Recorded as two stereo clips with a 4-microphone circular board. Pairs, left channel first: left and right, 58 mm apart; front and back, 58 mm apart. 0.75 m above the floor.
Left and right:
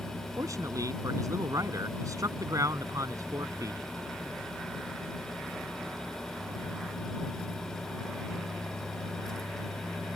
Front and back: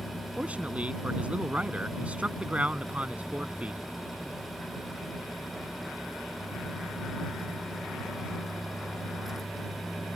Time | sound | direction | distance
0.4 | a man speaking | 115° right | ?